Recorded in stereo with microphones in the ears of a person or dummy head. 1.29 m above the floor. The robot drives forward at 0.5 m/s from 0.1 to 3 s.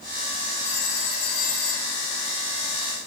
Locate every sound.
0.6 s a phone ringing: 60° left (ahead or behind), 8 m; by 2.0 s 55° left (ahead or behind), 8.5 m